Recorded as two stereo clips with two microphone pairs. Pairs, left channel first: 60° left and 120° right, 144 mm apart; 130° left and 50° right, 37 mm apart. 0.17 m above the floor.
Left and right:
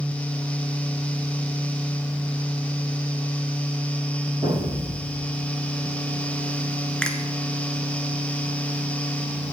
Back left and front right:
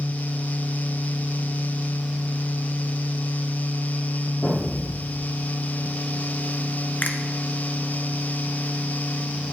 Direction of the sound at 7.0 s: 145° left.